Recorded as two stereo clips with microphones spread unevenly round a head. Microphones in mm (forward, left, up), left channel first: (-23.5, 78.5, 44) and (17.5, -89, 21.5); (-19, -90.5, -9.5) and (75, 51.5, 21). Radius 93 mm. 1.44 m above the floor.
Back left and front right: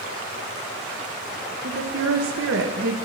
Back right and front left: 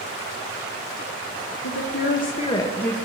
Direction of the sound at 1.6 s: 120° right.